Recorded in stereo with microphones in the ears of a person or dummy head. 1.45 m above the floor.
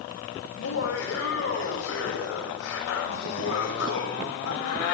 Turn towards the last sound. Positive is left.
turn(degrees=85)